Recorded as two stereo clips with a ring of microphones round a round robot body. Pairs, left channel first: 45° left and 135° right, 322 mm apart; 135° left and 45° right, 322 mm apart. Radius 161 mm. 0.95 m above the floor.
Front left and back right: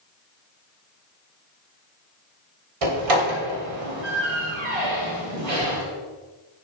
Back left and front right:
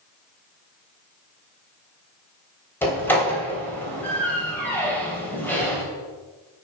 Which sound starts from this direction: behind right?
A door slam, at 2.8 s.